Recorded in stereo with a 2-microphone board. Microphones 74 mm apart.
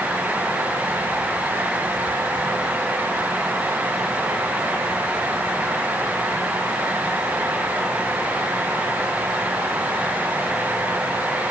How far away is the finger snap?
No finger snap in this recording.